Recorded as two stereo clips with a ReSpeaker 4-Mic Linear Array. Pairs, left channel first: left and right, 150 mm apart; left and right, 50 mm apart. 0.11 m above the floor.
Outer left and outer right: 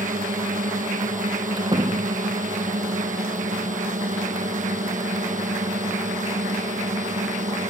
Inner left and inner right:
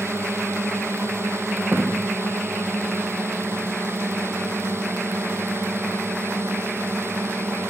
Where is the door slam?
30° right (ahead or behind).